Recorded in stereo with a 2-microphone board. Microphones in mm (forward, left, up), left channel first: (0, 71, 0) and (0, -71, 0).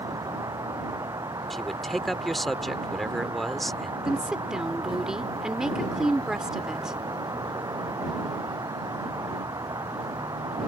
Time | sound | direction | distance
0.0 | an insect | 25° right (ahead or behind) | ?
1.5 | a man speaking | centre (ahead or behind) | ?
4.0 | a woman speaking | 5° right (ahead or behind) | ?